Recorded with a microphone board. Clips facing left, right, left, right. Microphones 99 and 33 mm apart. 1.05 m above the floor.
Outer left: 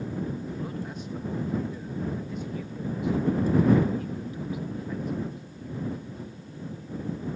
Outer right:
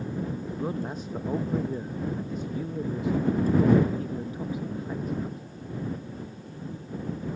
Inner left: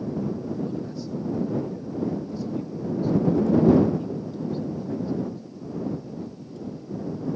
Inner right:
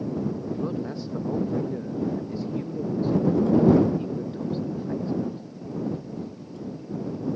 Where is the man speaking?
40° right (ahead or behind).